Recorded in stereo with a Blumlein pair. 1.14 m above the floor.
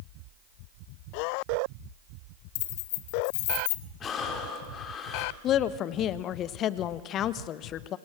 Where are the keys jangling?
50° left, 1.6 m.